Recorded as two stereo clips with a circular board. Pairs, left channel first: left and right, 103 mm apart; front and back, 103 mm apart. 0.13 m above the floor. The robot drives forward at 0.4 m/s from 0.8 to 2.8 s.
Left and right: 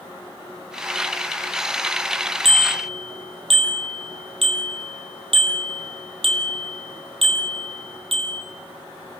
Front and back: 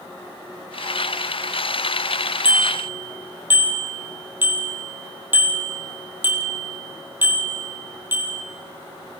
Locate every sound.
2.5 s a bicycle bell: 105° right, 3 m; by 8.4 s 110° right, 3 m